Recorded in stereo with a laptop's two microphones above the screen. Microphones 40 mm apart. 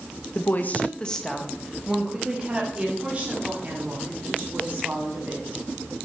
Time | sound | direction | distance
0.3 | a woman speaking | 55° left (ahead or behind) | 0.8 m